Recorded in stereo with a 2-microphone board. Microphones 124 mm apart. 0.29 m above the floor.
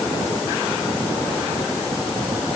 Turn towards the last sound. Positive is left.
No sound to turn to.